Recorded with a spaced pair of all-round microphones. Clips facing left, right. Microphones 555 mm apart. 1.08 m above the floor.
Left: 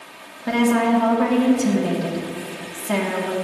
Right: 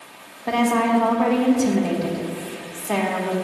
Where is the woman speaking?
40° left (ahead or behind), 1.3 m.